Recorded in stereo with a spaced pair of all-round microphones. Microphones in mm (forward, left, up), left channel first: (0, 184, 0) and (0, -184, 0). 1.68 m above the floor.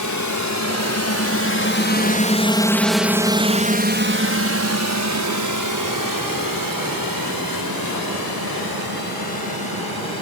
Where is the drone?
55° left (ahead or behind); by 10.2 s 75° right (ahead or behind).